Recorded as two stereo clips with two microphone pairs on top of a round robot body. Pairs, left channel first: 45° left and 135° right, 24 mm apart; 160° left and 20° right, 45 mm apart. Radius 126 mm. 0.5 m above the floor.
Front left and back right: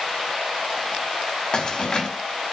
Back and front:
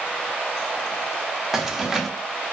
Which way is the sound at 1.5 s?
60° left.